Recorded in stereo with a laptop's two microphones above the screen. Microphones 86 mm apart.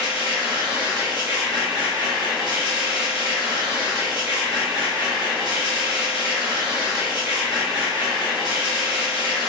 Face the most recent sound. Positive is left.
turn(degrees=-60)  # may be behind; listen again after turning